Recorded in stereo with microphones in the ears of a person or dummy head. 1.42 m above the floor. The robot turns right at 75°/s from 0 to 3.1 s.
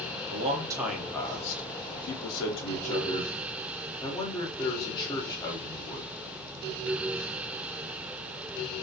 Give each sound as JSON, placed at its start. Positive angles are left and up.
{"t": 0.3, "sound": "a man speaking", "azimuth_deg": -50, "distance_m": 0.6}